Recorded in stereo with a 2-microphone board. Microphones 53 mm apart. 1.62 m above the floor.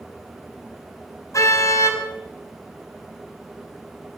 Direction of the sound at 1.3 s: 70° left (ahead or behind).